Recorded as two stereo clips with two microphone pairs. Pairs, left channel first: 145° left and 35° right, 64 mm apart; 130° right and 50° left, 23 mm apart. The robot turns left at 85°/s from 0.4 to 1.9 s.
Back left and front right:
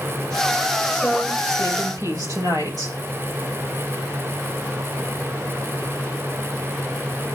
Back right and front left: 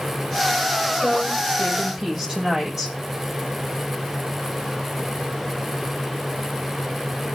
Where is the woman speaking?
65° left, 7.5 m; by 3.0 s 15° right, 7.5 m.